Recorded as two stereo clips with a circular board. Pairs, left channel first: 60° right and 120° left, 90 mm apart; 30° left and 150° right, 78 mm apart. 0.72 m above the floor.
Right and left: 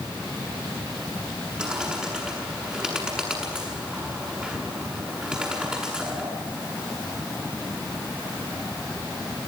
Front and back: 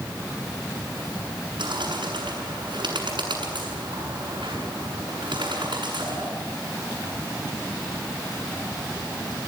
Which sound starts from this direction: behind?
A bird, at 1.6 s.